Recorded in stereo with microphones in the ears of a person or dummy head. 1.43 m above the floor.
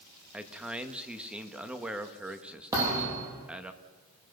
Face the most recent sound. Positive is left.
turn(degrees=-20)  # may be behind; listen again after turning